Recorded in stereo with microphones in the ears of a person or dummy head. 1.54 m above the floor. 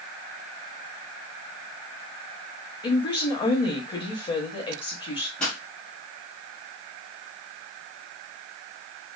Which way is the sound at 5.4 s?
5° left (ahead or behind).